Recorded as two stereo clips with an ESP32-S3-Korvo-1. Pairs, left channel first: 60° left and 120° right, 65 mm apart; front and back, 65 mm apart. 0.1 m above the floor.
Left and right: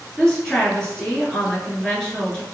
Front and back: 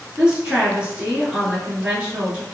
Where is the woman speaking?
125° left, 1.2 m.